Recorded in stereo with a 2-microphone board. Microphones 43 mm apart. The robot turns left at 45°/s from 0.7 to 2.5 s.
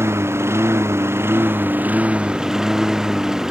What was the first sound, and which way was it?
A lawn mower, 85° right.